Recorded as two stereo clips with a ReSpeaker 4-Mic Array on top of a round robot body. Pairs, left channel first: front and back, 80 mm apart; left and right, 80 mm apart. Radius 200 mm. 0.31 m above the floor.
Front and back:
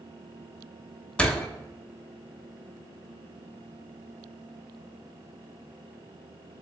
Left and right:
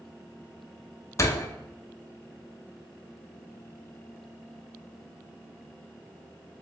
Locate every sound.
1.2 s a door slam: 70° left, 0.8 m